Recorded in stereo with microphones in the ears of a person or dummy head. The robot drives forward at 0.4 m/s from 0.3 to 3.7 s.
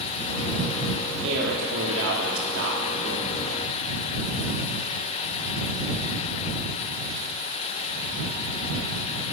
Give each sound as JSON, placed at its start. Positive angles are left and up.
{"t": 1.2, "sound": "a man speaking", "side_deg": -70, "distance_m": 2.0}